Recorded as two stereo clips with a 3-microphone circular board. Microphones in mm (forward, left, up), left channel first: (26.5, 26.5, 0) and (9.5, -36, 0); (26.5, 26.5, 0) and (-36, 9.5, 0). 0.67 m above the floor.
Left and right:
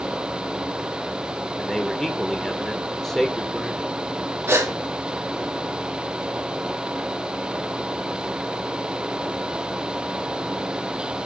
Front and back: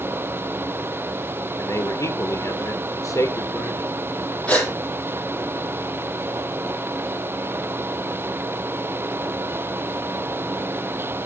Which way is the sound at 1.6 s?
10° right.